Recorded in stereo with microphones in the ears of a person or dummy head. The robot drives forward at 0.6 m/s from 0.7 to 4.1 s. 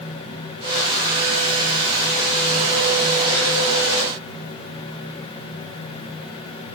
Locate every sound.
Only background noise.